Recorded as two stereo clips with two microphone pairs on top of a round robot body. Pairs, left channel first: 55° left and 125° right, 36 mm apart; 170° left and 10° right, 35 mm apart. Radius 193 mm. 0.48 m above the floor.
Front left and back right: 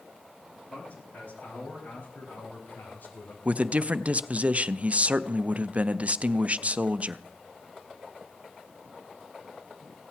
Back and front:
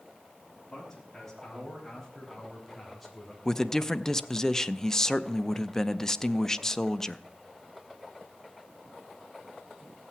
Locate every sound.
0.7 s a man speaking: 85° left, 4.5 m; by 3.4 s 75° left, 3 m
3.5 s a man speaking: 110° right, 0.8 m